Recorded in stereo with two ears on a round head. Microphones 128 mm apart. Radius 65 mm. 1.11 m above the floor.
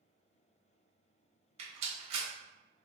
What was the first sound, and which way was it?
A rattle, 40° right (ahead or behind).